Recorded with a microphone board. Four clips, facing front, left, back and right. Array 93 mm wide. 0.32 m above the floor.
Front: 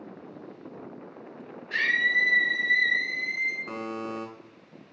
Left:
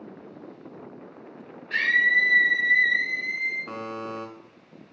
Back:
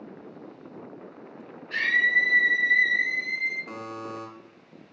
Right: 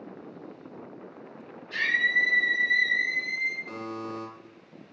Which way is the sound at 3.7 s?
55° left.